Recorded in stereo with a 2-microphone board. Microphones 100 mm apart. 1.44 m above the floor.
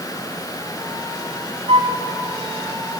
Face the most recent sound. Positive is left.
turn(degrees=-65)  # may be behind; listen again after turning